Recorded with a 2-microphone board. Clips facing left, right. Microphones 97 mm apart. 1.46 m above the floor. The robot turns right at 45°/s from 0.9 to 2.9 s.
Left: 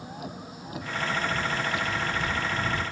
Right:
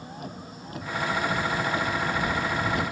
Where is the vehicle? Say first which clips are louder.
Even; straight behind; by 2.9 s 90° right.